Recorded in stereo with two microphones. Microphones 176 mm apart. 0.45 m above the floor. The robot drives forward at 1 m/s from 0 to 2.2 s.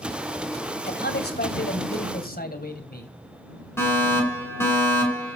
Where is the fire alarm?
15° left (ahead or behind), 7.5 m.